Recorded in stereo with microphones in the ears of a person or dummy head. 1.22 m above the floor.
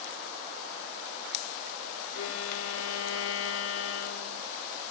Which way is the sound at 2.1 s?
80° left.